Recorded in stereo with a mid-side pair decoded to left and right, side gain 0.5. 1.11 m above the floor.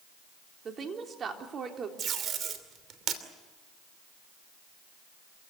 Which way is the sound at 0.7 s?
45° right.